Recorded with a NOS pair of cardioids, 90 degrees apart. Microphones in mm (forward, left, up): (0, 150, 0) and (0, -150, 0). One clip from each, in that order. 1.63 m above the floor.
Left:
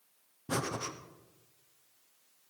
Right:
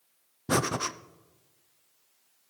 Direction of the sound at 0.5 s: 35° right.